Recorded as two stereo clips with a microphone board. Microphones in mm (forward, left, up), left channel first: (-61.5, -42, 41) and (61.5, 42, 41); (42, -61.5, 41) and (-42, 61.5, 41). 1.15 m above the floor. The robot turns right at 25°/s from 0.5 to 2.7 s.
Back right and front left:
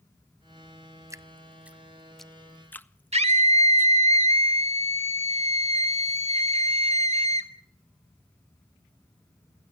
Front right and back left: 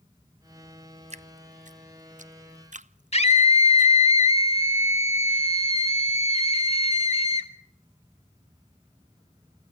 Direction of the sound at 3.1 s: 10° right.